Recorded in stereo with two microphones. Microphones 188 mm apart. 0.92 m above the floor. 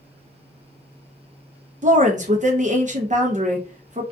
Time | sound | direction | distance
1.8 | a woman speaking | 40° right (ahead or behind) | 0.6 m